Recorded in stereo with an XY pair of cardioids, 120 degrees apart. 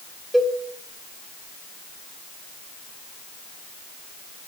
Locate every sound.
0.3 s a cowbell: 10° right, 1.0 m